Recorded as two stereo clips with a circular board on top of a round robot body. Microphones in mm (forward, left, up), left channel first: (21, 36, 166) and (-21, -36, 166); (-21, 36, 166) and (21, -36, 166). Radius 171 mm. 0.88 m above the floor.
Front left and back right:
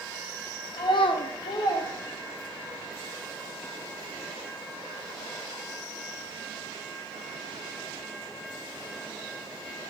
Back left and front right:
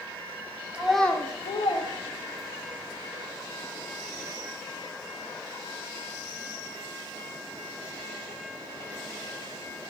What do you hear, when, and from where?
0.7 s a child speaking: 20° left, 0.7 m; by 2.8 s 140° left, 1.4 m